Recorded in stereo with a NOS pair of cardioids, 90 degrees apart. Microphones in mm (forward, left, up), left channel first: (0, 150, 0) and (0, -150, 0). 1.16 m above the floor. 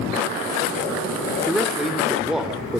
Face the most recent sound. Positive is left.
turn(degrees=0)